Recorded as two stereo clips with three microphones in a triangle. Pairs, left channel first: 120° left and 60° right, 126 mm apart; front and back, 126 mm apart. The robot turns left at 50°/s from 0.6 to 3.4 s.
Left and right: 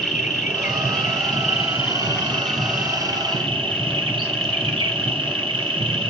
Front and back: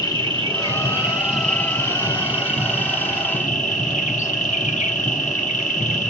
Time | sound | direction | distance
0.0 | an insect | 130° left | 0.8 m